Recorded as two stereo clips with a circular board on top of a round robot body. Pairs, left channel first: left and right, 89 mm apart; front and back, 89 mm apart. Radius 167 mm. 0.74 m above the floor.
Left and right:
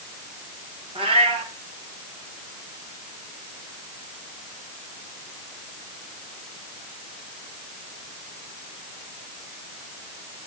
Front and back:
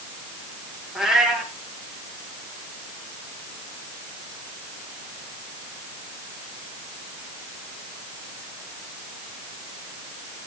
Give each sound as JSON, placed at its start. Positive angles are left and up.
{"t": 0.9, "sound": "a cat meowing", "azimuth_deg": -95, "distance_m": 3.5}